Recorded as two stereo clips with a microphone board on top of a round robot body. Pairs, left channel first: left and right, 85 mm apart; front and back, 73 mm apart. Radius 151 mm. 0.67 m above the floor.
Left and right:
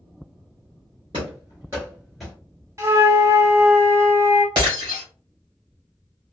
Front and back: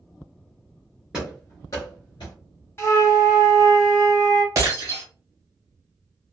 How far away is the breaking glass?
About 1.4 m.